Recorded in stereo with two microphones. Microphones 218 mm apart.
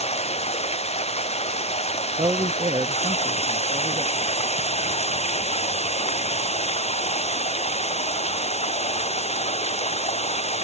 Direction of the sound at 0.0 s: 30° left (ahead or behind).